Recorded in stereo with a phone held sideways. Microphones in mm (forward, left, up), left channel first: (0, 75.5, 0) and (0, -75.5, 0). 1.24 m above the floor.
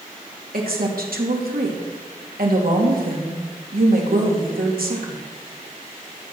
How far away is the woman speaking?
About 2.5 m.